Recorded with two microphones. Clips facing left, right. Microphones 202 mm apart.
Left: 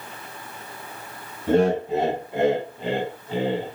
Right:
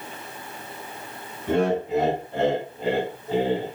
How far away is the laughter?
About 1.4 m.